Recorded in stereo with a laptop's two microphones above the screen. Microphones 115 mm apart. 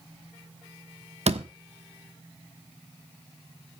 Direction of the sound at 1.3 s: 70° right (ahead or behind).